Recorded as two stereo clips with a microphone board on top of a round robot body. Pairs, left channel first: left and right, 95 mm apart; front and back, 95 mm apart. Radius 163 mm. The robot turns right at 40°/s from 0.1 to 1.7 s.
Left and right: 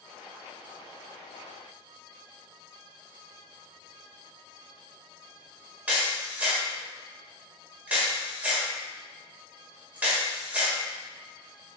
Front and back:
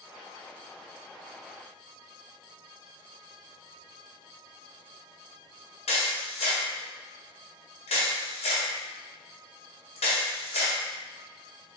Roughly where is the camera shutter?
Ahead.